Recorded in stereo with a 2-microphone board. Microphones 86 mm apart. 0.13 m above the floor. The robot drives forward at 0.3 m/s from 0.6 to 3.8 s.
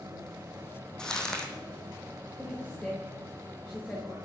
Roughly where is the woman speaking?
Centre.